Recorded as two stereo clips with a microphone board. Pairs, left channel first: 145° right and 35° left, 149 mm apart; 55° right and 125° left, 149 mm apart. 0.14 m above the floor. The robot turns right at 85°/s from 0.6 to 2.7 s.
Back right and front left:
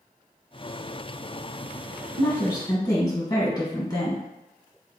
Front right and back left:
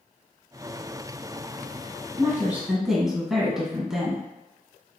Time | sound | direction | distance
2.2 | a woman speaking | 165° left | 1.5 m